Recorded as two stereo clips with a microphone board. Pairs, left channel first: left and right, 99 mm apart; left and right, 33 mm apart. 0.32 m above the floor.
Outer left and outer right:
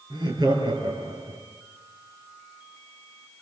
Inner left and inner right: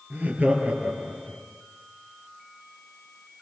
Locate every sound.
0.1 s laughter: 50° right (ahead or behind), 6.5 m; by 1.4 s 40° right (ahead or behind), 5.5 m